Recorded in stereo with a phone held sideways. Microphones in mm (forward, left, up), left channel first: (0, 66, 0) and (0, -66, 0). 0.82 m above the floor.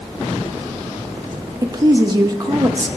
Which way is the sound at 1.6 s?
30° right (ahead or behind).